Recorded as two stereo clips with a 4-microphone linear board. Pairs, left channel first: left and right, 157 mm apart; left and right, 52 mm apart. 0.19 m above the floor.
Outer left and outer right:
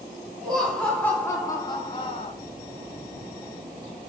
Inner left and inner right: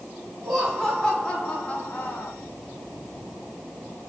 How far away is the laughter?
About 3 m.